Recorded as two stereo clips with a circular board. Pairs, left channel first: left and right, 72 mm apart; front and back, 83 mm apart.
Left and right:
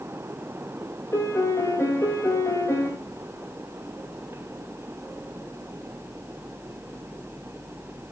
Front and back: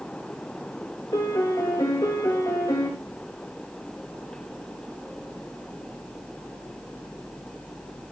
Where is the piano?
35° left, 4 m.